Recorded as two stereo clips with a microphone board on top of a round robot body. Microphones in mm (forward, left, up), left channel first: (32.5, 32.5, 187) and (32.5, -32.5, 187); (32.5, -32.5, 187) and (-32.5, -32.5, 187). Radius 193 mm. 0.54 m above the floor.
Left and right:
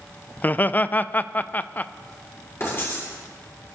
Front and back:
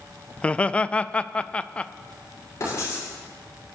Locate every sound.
0.4 s laughter: 55° left, 0.6 m
2.6 s writing: 40° left, 6.5 m